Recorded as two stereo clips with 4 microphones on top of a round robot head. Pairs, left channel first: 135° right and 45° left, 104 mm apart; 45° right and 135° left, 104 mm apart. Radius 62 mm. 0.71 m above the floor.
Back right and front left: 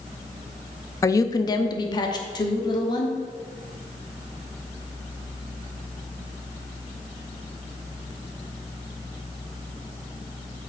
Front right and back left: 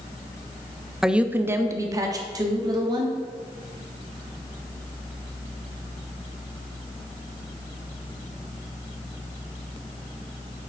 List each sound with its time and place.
1.0 s a woman speaking: 145° right, 0.5 m; by 3.2 s straight behind, 1.6 m